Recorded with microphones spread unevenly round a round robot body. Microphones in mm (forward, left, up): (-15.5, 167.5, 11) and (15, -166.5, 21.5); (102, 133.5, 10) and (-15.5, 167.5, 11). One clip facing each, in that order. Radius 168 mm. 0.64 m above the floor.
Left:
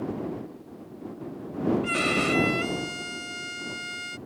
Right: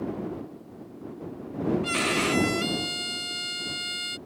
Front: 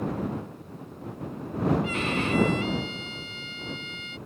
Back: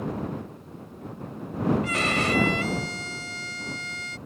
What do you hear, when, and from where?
1.8 s a violin: 155° right